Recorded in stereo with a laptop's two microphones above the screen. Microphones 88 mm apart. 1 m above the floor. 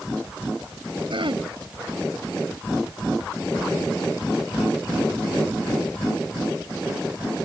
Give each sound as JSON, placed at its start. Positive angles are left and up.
{"t": 1.1, "sound": "throat clearing", "side_deg": -75}